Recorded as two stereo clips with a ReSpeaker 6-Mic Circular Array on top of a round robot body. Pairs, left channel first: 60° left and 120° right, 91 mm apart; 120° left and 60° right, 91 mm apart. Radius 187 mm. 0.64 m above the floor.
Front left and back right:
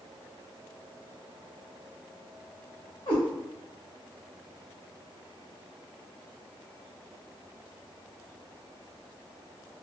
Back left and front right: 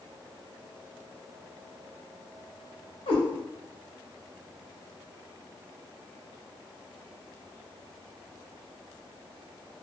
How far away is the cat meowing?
About 1.6 m.